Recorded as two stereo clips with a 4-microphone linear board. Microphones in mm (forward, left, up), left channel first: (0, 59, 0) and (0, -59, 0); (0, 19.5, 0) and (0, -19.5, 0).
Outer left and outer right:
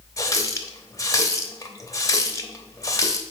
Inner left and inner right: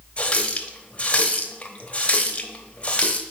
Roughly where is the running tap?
Left.